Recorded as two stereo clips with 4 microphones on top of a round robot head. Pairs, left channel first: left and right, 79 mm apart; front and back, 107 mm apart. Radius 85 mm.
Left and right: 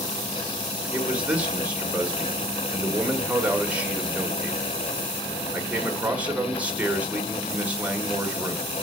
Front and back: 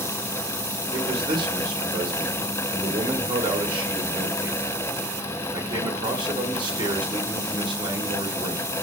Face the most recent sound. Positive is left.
turn(degrees=-155)